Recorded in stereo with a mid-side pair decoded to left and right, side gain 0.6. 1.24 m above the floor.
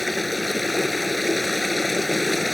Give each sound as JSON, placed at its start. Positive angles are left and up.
{"t": 0.0, "sound": "running water", "azimuth_deg": 10}